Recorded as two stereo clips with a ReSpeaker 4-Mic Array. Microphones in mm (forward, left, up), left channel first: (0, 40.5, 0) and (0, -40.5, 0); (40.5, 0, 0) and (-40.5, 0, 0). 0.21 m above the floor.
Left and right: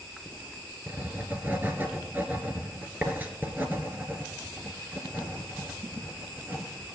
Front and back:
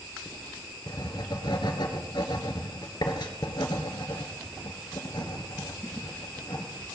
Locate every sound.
0.9 s writing: 25° right, 1.7 m